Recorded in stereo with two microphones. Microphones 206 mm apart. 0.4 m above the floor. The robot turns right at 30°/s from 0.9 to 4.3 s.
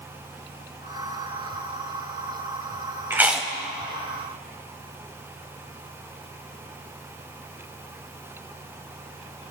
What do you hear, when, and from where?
3.1 s chewing: 10° right (ahead or behind), 1.3 m; by 3.5 s centre (ahead or behind), 1.3 m